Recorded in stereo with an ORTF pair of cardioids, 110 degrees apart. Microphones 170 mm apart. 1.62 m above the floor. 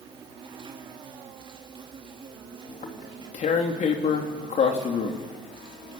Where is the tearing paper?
45° left, 3 m.